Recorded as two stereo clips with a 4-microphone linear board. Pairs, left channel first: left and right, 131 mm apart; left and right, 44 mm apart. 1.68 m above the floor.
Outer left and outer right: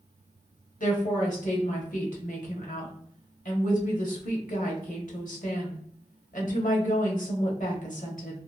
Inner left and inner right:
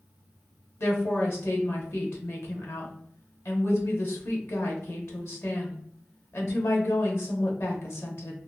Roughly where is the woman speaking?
Left.